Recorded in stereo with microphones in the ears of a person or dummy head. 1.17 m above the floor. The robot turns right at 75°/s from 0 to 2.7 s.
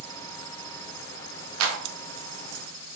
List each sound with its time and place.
1.6 s a clap: 80° right, 0.9 m; by 1.8 s 70° right (ahead or behind), 0.9 m